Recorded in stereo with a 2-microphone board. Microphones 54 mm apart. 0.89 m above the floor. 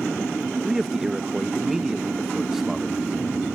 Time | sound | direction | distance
0.7 | a man speaking | 5° right (ahead or behind) | ?